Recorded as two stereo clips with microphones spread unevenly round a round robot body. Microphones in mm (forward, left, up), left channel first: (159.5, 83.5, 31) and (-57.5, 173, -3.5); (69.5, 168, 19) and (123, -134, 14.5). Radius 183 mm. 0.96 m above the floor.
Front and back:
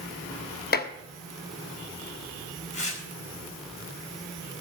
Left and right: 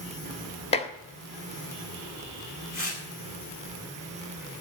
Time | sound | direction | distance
0.7 | dishes clattering | 30° left | 1.5 m
2.7 | tearing paper | 40° left | 8.5 m